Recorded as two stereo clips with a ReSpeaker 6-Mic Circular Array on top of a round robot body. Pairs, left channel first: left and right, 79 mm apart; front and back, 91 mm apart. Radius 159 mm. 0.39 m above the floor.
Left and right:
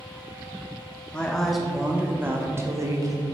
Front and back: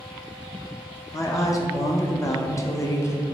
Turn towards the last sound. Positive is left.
turn(degrees=-55)